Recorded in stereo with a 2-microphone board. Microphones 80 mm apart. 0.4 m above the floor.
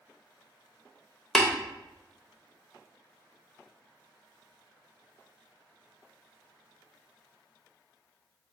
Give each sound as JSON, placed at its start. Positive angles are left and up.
{"t": 1.4, "sound": "tapping", "side_deg": 5, "distance_m": 0.7}